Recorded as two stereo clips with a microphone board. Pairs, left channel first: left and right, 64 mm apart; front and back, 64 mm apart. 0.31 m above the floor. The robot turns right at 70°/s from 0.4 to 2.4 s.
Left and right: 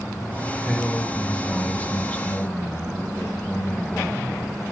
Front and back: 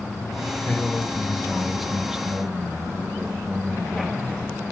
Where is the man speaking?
10° left, 1.1 m; by 4.3 s 130° left, 1.1 m.